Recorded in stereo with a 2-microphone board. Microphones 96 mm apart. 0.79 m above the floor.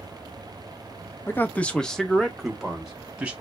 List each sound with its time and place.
1.3 s a man speaking: 25° left (ahead or behind), 0.5 m; by 3.3 s 15° right (ahead or behind), 1.2 m